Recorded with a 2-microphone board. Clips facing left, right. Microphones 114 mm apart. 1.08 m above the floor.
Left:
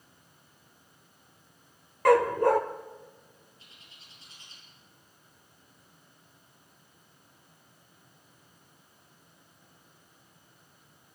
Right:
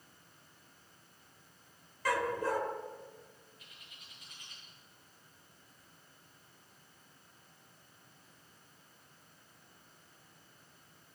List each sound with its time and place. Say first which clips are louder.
2.0 s a dog barking: left 12 dB; 60° left (ahead or behind), 1.4 m
3.6 s a bird: left 1 dB; 30° left (ahead or behind), 9.5 m